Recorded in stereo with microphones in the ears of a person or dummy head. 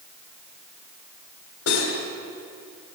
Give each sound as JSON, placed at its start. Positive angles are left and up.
{"t": 1.7, "sound": "cutlery clinking", "side_deg": 80, "distance_m": 2.5}